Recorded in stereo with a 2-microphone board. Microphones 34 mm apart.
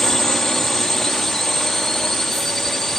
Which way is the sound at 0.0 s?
15° left (ahead or behind).